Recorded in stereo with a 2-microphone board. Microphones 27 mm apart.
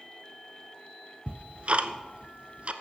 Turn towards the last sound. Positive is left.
turn(degrees=-45)  # may be behind; listen again after turning